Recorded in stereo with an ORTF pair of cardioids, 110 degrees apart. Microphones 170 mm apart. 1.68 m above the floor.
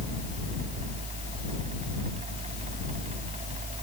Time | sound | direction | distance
0.0 | a fan | 45° right | ?